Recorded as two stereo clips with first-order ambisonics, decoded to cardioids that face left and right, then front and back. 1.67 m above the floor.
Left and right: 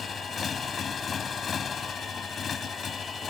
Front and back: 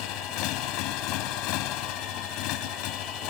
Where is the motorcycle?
25° left.